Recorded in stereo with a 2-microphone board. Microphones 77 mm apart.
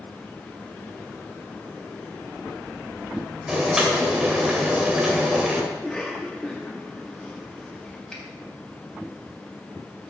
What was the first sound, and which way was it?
Boiling, 10° right (ahead or behind).